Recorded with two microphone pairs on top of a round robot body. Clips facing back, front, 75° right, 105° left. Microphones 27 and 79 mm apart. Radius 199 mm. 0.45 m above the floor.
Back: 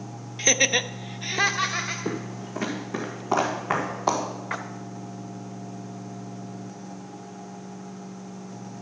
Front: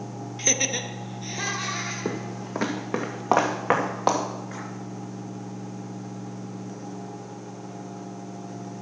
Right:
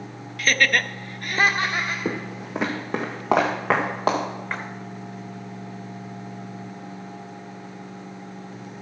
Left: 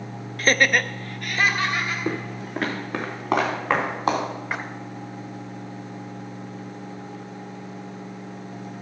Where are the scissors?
No scissors in this recording.